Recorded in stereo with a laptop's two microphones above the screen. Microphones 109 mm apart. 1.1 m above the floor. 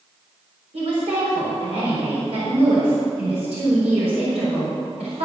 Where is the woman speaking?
85° right, 4 m.